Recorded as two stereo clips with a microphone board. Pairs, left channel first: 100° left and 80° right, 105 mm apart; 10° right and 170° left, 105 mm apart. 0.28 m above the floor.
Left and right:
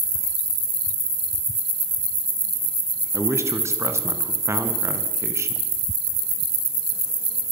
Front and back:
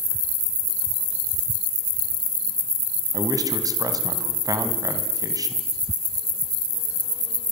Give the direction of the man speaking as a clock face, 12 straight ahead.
5 o'clock.